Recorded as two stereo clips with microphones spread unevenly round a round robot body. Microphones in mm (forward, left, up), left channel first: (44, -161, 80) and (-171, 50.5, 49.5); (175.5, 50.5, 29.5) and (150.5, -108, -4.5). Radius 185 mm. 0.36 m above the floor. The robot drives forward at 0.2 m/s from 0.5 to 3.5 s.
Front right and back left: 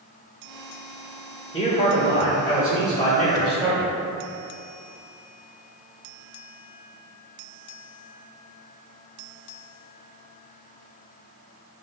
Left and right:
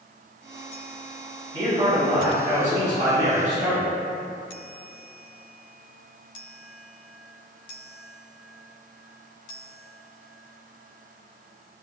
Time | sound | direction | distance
1.5 | a man speaking | 120° right | 1.6 m